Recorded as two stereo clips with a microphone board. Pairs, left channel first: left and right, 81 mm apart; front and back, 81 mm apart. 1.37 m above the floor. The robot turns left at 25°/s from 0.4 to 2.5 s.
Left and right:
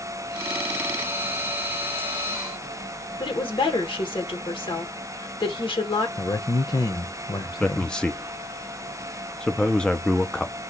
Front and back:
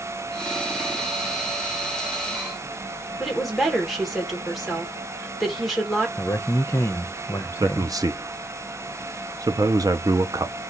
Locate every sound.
3.2 s a woman speaking: 90° left, 1.6 m
6.2 s a man speaking: 55° left, 0.7 m
7.6 s a man speaking: 165° left, 0.6 m